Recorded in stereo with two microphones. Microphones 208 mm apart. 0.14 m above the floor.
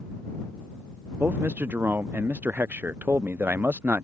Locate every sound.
1.2 s a man speaking: 10° right (ahead or behind)